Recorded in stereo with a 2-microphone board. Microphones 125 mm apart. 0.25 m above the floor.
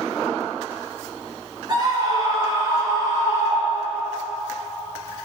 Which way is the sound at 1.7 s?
35° right (ahead or behind).